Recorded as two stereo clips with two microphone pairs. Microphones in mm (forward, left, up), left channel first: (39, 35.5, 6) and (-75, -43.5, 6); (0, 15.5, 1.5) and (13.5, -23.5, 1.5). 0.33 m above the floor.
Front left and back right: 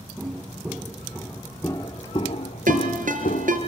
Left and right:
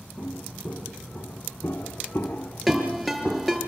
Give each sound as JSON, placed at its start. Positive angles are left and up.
{"t": 0.2, "sound": "footsteps", "azimuth_deg": 130, "distance_m": 3.5}
{"t": 2.7, "sound": "a ringtone", "azimuth_deg": -165, "distance_m": 5.0}